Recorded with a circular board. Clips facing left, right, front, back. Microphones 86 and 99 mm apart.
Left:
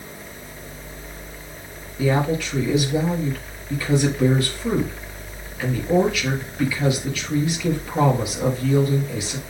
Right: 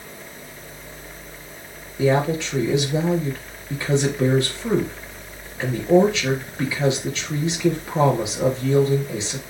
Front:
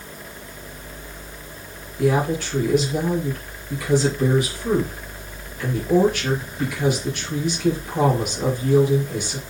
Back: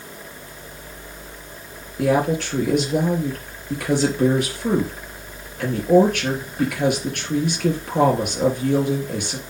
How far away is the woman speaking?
About 4 m.